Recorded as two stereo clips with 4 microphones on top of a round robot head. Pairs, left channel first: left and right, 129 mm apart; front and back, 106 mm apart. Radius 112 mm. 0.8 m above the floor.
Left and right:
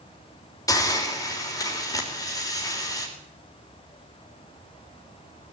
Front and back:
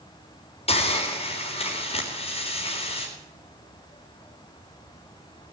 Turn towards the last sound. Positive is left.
turn(degrees=25)